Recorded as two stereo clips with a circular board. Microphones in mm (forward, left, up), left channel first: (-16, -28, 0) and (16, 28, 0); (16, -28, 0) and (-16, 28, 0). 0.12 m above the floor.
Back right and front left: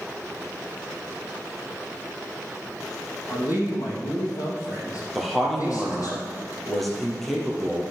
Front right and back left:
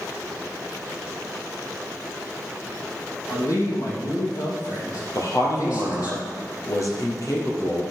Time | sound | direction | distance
3.3 | a man speaking | 90° right | 4 m
5.2 | a man speaking | 35° right | 3 m